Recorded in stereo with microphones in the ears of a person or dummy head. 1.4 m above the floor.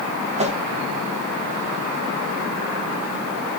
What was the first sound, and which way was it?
A whoosh, 30° right (ahead or behind).